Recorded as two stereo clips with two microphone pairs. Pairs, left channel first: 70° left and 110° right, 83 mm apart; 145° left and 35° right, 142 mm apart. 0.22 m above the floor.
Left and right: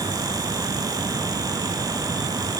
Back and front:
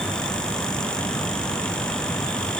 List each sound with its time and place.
Only background noise.